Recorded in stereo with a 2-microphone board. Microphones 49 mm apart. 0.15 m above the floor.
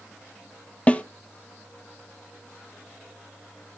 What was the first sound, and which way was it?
A snare drum, 25° left (ahead or behind).